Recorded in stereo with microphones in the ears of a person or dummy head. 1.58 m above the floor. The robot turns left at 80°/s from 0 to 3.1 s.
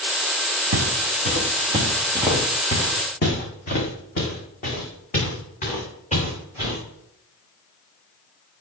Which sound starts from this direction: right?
Footsteps, at 0.7 s.